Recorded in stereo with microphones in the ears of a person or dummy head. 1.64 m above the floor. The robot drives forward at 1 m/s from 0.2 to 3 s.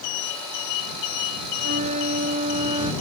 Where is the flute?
55° right (ahead or behind); by 2.9 s 40° right (ahead or behind).